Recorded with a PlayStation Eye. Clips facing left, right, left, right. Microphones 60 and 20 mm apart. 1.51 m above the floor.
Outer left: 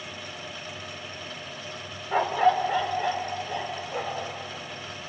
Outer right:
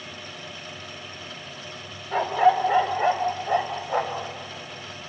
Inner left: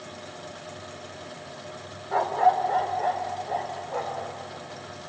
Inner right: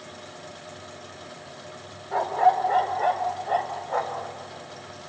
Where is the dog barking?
15° left (ahead or behind), 1.2 m; by 4.3 s 70° right (ahead or behind), 3 m.